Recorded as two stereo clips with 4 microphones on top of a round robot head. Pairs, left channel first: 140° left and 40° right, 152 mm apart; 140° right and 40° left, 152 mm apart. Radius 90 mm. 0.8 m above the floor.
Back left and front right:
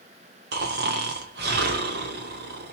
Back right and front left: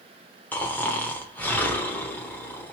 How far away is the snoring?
About 1.0 m.